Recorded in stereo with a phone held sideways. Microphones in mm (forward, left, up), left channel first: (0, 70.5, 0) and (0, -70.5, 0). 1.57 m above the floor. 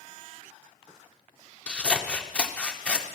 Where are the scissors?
10° left (ahead or behind), 0.7 m.